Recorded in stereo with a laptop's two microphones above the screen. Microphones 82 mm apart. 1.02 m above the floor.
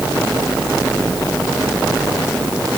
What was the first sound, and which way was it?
Only background noise.